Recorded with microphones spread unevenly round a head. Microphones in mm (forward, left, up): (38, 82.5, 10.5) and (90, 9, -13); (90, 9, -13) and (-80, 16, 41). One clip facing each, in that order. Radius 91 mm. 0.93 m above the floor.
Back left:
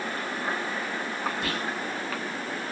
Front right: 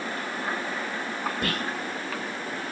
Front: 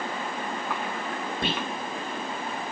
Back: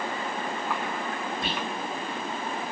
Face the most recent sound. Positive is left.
turn(degrees=-45)